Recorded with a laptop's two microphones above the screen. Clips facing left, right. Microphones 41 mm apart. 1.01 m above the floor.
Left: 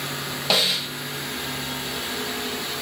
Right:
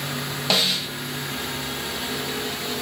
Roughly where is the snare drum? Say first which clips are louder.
Even; centre.